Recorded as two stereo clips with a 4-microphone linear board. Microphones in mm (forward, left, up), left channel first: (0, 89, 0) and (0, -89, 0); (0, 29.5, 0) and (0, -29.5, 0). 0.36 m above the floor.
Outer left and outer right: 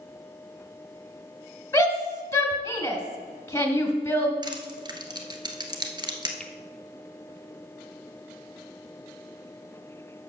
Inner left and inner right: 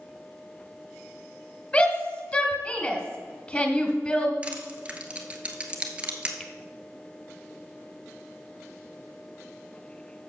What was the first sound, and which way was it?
A shout, 15° left (ahead or behind).